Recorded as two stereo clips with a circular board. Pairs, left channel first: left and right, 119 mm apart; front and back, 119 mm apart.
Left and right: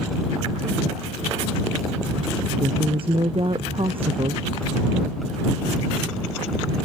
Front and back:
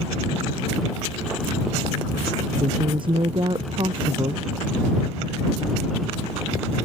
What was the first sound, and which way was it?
A woman speaking, 135° right.